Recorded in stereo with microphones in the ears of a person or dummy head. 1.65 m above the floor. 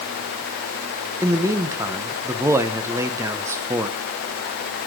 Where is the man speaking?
10° right (ahead or behind), 0.9 m.